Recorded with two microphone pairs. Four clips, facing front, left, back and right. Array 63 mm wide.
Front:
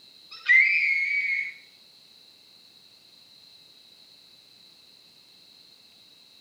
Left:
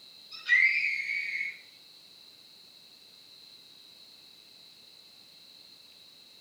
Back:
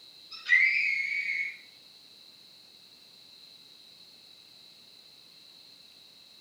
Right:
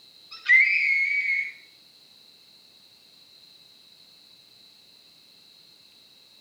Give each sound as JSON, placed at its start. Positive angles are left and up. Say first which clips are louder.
{"t": 0.3, "sound": "a scream", "louder": "right 5 dB, front 4 dB", "azimuth_deg": -70, "distance_m": 7.0}